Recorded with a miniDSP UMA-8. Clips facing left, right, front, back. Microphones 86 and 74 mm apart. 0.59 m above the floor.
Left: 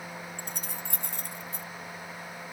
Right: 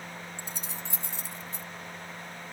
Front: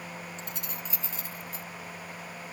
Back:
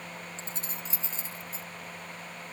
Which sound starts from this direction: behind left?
Keys jangling, at 0.4 s.